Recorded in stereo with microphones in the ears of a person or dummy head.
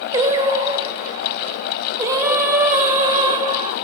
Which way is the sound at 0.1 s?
20° right (ahead or behind).